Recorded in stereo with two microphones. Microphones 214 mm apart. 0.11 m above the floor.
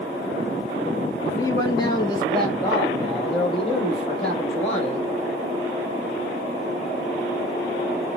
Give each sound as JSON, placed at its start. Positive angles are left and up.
{"t": 1.3, "sound": "a man speaking", "side_deg": 15, "distance_m": 1.7}